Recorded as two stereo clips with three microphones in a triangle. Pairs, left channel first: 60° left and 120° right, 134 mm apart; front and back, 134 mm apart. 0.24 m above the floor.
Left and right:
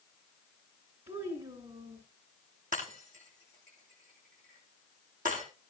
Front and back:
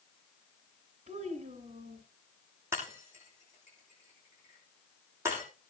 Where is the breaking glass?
110° right, 7 m.